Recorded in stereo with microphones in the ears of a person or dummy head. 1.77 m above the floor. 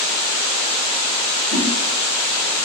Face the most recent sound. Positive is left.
turn(degrees=-35)  # may be behind; listen again after turning